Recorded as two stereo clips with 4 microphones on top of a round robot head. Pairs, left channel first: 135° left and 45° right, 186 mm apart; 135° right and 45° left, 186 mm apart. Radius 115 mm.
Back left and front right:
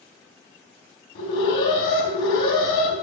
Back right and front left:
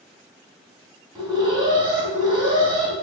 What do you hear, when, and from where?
1.1 s an alarm: 115° left, 3.5 m